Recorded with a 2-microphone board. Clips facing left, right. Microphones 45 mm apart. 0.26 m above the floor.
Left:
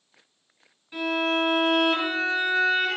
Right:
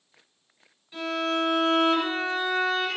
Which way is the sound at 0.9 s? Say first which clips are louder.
Left 2 dB; 20° left (ahead or behind).